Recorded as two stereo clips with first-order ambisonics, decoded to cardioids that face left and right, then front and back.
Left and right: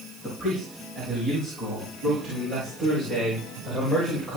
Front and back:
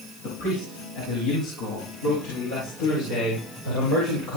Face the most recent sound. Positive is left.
turn(degrees=-10)